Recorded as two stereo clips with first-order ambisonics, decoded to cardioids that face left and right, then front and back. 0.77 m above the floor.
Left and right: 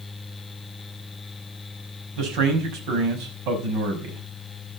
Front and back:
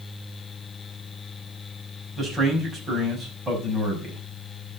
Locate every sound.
2.2 s a man speaking: 105° right, 5.5 m